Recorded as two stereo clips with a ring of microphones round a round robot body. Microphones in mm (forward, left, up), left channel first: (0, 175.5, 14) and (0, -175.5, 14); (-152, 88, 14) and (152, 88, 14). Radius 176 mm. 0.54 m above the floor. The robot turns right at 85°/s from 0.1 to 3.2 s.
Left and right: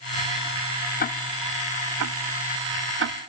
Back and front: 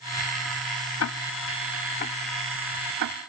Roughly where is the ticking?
Behind left.